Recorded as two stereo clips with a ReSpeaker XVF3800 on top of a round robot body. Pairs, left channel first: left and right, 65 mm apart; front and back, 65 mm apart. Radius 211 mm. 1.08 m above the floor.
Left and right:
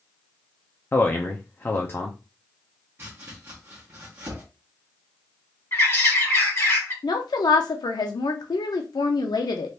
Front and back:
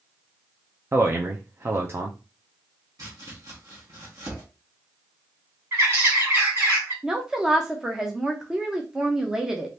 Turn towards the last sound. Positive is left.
turn(degrees=100)